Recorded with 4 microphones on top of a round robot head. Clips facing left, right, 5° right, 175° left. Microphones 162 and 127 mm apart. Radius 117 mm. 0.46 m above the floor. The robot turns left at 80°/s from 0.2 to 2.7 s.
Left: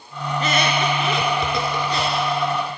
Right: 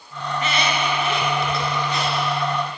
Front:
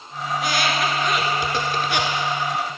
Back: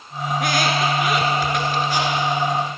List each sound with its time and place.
0.3 s a squeak: 155° left, 1.3 m; by 2.2 s 5° left, 1.3 m